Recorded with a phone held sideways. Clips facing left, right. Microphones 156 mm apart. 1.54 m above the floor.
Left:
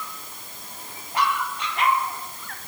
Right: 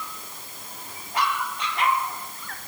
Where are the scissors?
I don't hear scissors.